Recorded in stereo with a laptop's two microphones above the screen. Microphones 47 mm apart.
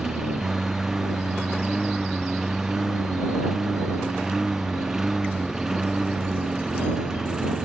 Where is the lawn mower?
10° right (ahead or behind).